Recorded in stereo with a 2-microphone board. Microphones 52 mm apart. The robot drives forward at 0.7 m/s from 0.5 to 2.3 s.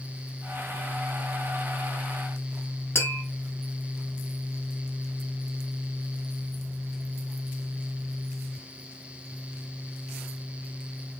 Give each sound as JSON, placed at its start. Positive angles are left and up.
{"t": 3.0, "sound": "tapping", "side_deg": 55, "distance_m": 0.8}